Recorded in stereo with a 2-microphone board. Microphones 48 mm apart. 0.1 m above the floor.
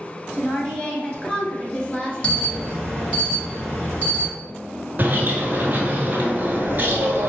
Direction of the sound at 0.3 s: 25° left (ahead or behind).